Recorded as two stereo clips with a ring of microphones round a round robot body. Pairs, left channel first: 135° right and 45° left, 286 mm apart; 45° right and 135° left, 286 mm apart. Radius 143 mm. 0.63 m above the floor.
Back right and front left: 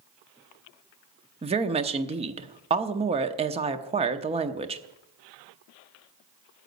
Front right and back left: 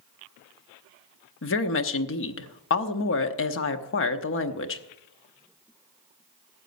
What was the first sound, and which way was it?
A woman speaking, 20° right.